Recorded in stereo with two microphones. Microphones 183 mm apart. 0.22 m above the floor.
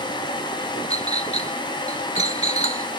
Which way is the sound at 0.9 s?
35° left (ahead or behind).